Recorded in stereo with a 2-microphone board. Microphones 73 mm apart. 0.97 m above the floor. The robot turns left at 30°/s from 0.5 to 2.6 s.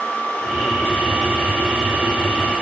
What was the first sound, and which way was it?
Only background noise.